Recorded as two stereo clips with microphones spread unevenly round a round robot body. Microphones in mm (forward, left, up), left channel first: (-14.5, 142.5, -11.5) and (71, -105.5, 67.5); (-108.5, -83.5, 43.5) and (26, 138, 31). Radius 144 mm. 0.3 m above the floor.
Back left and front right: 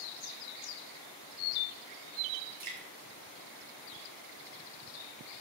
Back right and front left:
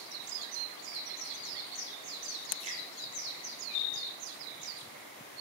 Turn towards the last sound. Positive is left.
turn(degrees=-10)